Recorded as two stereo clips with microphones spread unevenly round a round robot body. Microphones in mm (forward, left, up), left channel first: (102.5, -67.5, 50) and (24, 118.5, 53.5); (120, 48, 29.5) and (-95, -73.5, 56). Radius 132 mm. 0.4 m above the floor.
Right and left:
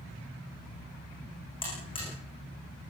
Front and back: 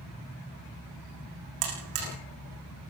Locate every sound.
1.6 s a buzzer: 140° right, 9 m